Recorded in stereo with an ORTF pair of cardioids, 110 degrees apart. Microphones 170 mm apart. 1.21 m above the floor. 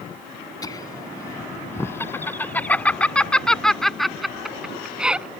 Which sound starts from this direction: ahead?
Laughter, at 0.6 s.